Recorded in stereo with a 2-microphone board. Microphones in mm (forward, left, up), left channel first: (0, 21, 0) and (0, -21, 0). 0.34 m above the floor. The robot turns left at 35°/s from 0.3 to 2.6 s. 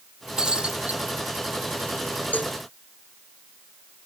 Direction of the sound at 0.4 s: 15° right (ahead or behind).